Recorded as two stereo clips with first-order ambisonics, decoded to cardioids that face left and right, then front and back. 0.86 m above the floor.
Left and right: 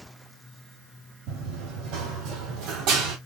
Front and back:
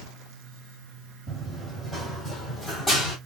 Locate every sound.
1.3 s running footsteps: 85° right, 2.5 m; by 3.2 s 65° right, 1.5 m